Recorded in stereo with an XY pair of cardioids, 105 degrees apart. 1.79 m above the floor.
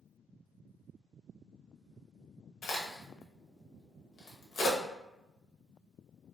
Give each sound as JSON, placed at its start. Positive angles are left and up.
{"t": 2.6, "sound": "a crack", "azimuth_deg": 65, "distance_m": 0.8}